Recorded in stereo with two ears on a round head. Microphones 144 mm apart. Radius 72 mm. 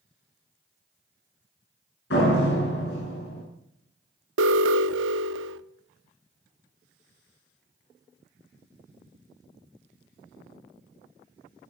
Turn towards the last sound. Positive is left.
turn(degrees=-85)